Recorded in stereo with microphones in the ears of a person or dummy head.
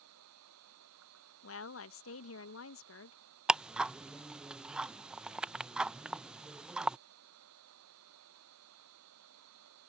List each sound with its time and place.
0.0 s a machine running: 85° right
1.4 s a woman speaking: 70° left (ahead or behind)
3.5 s ticking: 5° right (ahead or behind)